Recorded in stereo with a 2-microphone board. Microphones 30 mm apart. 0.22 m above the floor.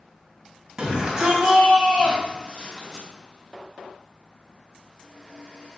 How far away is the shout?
About 1.3 m.